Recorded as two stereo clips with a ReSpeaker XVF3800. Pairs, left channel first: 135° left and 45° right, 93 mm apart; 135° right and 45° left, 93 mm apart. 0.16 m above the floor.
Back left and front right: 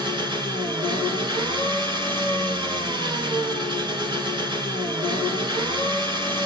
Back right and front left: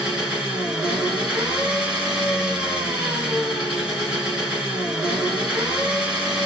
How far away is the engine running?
About 1.7 m.